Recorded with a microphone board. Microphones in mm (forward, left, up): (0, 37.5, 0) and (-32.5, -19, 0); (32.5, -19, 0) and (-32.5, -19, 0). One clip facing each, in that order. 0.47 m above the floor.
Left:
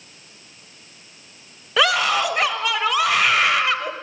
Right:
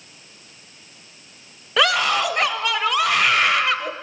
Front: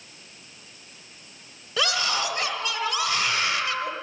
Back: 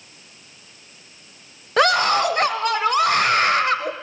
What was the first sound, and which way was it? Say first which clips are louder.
A scream: even, back 10 dB; 150° left.